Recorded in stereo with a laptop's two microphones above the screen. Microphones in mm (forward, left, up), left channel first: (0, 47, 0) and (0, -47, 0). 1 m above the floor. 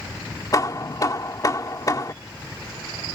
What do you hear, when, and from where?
0.5 s hammering: 40° left (ahead or behind)